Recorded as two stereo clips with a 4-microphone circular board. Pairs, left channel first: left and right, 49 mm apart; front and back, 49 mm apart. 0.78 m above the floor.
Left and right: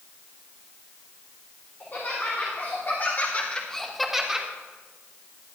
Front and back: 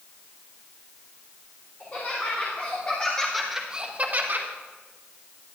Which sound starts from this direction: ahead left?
Laughter, at 1.8 s.